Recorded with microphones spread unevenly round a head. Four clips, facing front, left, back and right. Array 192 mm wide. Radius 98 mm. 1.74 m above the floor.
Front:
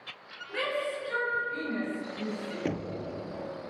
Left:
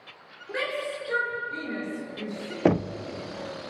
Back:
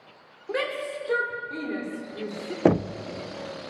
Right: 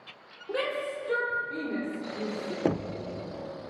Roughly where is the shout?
Behind.